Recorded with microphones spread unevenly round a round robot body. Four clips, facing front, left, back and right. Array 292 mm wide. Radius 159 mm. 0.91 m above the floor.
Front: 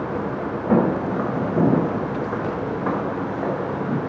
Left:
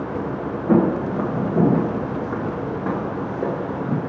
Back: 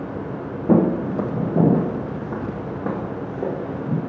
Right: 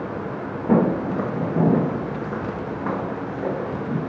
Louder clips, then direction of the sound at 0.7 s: Left 1 dB, back 2 dB; 175° right.